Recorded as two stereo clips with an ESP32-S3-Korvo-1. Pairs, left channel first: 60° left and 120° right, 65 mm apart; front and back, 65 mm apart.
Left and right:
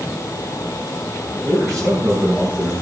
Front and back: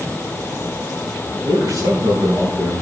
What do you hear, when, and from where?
1.4 s a man speaking: 150° right, 8.5 m